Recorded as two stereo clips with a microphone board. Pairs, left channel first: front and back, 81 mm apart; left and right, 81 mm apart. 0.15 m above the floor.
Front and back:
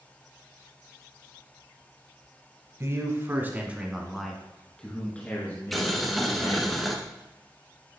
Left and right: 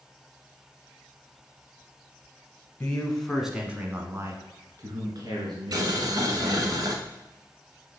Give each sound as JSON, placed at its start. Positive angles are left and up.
{"t": 2.8, "sound": "a man speaking", "azimuth_deg": 155, "distance_m": 1.4}
{"t": 5.7, "sound": "boiling", "azimuth_deg": -90, "distance_m": 1.0}